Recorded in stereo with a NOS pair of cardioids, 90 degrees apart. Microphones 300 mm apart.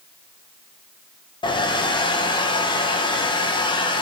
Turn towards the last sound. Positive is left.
turn(degrees=15)